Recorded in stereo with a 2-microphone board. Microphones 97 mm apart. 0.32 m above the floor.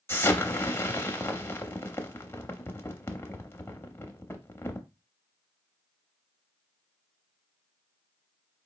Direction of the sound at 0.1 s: 25° left (ahead or behind).